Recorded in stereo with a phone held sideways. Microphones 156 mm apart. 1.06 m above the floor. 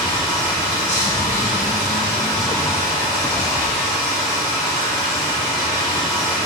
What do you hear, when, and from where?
0.0 s running water: 20° left (ahead or behind), 1.8 m